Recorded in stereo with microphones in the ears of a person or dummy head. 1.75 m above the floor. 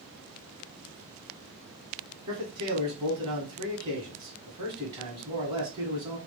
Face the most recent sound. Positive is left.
turn(degrees=-25)  # may be behind; listen again after turning